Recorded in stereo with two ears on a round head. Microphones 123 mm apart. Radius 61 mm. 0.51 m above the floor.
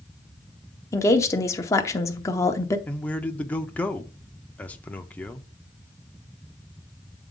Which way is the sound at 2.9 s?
10° left (ahead or behind).